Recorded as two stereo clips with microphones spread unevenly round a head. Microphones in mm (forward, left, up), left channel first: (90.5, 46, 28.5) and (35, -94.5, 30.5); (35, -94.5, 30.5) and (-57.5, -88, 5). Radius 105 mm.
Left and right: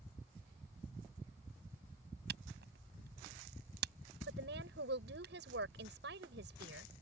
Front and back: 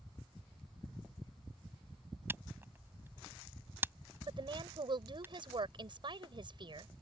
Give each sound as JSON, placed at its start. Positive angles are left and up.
{"t": 2.3, "sound": "a camera shutter", "azimuth_deg": -115}
{"t": 4.3, "sound": "a woman speaking", "azimuth_deg": -150}